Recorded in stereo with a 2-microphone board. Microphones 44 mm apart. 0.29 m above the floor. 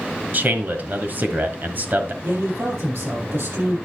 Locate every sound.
0.3 s a man speaking: 45° right (ahead or behind), 1.4 m
2.2 s a man speaking: 70° right (ahead or behind), 6.5 m